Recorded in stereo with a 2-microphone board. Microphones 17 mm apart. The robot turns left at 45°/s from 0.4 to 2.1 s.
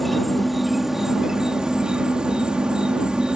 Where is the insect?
Straight ahead; by 3.4 s 75° right.